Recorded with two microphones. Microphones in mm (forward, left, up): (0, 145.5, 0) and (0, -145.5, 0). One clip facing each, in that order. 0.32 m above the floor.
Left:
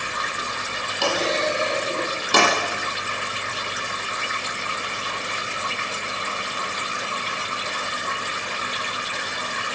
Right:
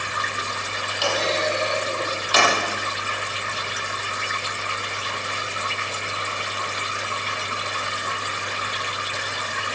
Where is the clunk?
55° left (ahead or behind), 7.5 m.